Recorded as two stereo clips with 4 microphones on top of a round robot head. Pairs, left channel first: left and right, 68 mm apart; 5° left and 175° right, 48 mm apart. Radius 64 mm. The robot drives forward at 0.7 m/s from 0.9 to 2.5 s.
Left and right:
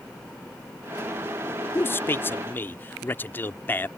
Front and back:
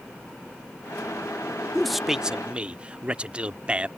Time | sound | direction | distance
1.8 | a man speaking | 85° left | ?